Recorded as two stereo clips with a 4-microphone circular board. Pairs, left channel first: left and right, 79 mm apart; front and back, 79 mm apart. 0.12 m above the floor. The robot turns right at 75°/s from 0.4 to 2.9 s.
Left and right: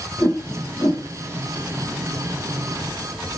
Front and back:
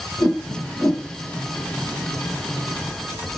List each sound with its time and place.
0.2 s a whoosh: 25° left, 1.3 m; by 1.1 s 70° left, 1.3 m